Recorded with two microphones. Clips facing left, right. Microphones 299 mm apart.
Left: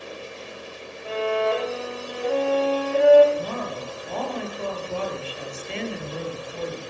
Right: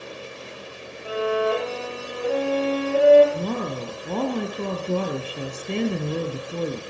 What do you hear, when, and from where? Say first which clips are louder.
1.1 s a violin: right 1 dB; 5° right (ahead or behind), 5.5 m
3.3 s a woman speaking: right 3 dB; 50° right (ahead or behind), 2.5 m